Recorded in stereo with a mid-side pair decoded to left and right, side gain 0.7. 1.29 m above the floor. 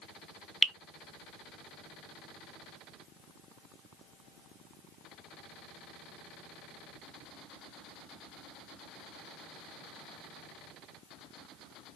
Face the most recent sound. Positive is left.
turn(degrees=-15)